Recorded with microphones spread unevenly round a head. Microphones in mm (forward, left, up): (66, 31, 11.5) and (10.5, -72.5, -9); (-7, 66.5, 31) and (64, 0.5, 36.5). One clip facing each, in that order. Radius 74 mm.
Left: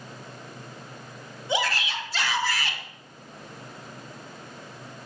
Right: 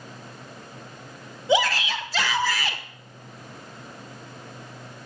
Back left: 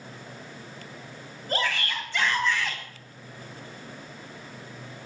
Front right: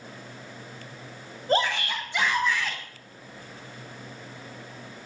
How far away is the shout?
About 1.8 m.